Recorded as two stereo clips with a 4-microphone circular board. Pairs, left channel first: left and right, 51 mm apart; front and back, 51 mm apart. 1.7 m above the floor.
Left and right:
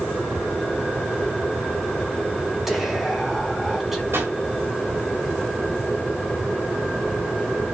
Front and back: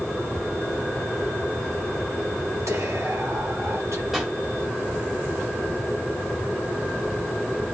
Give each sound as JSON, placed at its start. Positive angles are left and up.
{"t": 2.7, "sound": "whispering", "azimuth_deg": -170, "distance_m": 3.5}
{"t": 4.1, "sound": "a pop", "azimuth_deg": -100, "distance_m": 3.0}